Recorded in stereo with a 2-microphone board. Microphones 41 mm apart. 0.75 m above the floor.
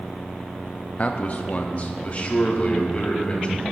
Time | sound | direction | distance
1.0 | a man speaking | 35° left (ahead or behind) | 0.6 m